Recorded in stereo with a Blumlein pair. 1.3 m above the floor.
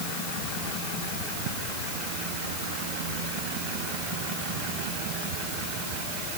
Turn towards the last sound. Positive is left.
No sound to turn to.